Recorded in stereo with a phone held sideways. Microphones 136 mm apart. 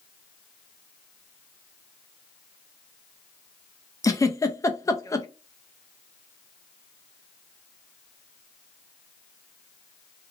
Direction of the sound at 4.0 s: 25° left (ahead or behind).